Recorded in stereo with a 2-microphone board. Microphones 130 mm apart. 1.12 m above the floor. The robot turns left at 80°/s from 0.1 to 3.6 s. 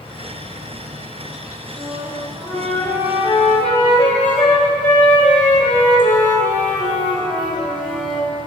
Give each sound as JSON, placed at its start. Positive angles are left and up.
{"t": 0.0, "sound": "an insect", "azimuth_deg": 140, "distance_m": 3.0}
{"t": 1.7, "sound": "a flute", "azimuth_deg": -115, "distance_m": 5.5}